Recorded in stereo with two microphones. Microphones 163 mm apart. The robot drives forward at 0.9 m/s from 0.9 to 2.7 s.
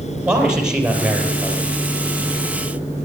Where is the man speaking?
5° right (ahead or behind), 3.5 m.